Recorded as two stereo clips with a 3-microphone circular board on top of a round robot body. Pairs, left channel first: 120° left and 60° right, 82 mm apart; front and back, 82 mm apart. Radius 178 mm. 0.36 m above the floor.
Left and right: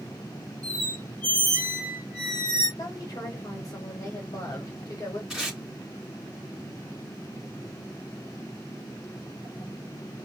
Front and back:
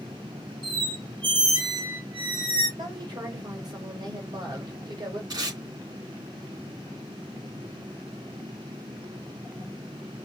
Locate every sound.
0.6 s a squeak: 165° right, 1.6 m
2.8 s a woman speaking: 160° left, 1.7 m
5.3 s tape being pulled: 150° right, 3 m